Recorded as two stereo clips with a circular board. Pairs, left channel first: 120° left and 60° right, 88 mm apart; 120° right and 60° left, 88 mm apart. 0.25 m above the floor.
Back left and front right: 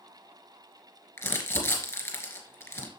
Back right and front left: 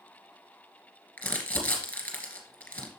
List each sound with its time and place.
1.2 s crumpling: 170° left, 2.0 m